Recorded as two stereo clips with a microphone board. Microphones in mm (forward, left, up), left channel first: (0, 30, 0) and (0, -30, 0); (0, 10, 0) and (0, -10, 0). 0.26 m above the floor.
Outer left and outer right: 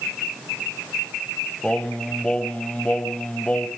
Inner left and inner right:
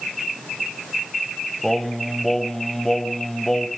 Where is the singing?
20° left (ahead or behind), 0.9 m.